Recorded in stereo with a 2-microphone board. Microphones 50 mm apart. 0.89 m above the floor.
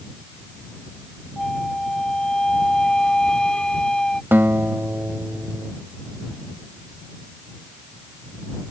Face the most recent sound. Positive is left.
turn(degrees=-45)  # may be behind; listen again after turning